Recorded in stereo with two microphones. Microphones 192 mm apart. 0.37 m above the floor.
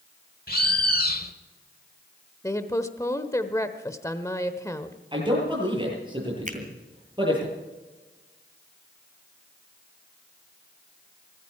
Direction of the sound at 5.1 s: 25° right (ahead or behind).